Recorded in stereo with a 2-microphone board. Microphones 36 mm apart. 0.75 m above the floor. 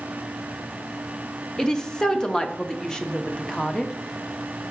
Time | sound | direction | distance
1.6 | a woman speaking | 20° left (ahead or behind) | 0.6 m